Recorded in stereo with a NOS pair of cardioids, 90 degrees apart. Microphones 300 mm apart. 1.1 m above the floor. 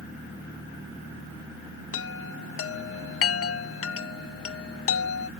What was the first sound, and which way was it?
A chime, 50° left.